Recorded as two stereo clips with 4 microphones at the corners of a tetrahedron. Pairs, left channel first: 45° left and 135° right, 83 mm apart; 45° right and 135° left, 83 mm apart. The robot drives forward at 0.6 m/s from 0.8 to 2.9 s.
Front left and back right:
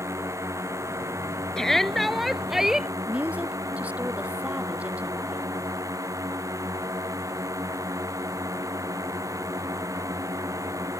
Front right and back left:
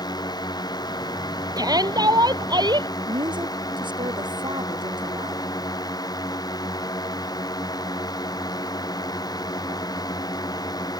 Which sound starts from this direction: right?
A drone, at 0.0 s.